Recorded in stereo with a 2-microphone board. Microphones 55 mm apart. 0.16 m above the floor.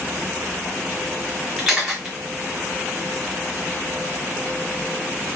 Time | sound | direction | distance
1.6 | a camera shutter | 5° right (ahead or behind) | 3.5 m